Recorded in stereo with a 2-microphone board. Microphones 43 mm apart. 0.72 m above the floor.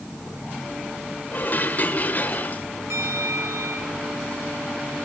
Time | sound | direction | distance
1.3 | dishes clattering | 40° left (ahead or behind) | 1.9 m
2.9 | a bell | 70° right (ahead or behind) | 4 m